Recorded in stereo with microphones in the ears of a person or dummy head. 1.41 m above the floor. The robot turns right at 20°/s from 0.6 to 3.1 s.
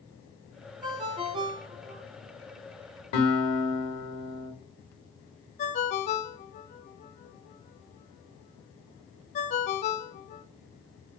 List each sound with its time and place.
0.8 s a ringtone: 25° right (ahead or behind), 0.6 m; by 2.0 s 30° right (ahead or behind), 0.6 m
3.1 s a guitar: 50° left (ahead or behind), 1.8 m
5.6 s a ringtone: 35° left (ahead or behind), 0.5 m